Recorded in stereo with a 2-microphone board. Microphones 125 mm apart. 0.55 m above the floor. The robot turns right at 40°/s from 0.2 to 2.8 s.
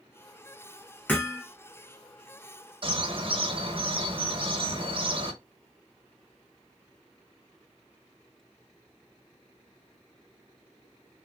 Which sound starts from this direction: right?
A bird, at 2.8 s.